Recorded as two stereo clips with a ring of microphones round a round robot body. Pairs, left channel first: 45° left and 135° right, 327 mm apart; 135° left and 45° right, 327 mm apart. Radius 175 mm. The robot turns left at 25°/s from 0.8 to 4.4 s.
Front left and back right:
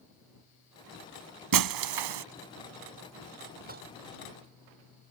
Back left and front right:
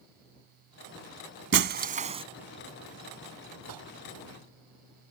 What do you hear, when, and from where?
1.5 s breaking glass: 100° right; by 2.2 s 120° right
3.7 s dishes clattering: 70° right; by 3.9 s 75° right